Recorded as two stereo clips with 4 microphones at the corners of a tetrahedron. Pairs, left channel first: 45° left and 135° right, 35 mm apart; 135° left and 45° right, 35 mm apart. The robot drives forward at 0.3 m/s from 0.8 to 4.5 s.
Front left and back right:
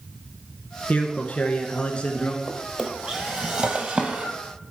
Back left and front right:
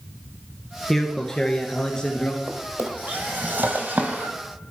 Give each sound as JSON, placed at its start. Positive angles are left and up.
{"t": 0.9, "sound": "a man speaking", "azimuth_deg": 60, "distance_m": 1.3}
{"t": 2.5, "sound": "a drawer", "azimuth_deg": -65, "distance_m": 1.6}